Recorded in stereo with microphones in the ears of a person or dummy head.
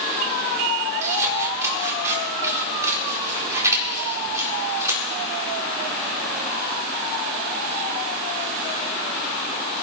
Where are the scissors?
5° right (ahead or behind), 4 m.